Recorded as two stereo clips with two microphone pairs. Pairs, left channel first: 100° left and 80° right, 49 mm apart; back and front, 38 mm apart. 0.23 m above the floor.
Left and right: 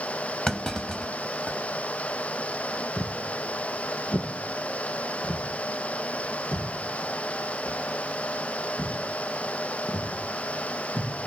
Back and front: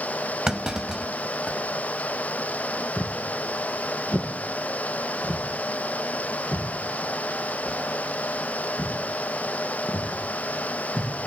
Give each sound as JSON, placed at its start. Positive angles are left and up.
{"t": 0.5, "sound": "a clunk", "azimuth_deg": 45, "distance_m": 0.8}
{"t": 3.0, "sound": "footsteps", "azimuth_deg": 110, "distance_m": 3.0}